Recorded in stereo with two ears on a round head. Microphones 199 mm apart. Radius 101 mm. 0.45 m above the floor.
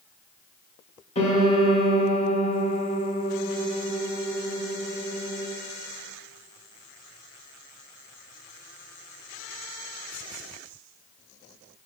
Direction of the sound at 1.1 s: 30° left (ahead or behind).